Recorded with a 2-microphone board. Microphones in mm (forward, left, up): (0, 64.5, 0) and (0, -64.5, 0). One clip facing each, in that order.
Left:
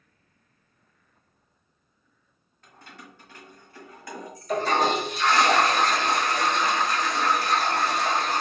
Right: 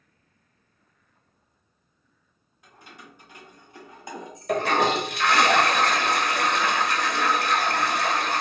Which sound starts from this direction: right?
A toilet flushing, at 4.5 s.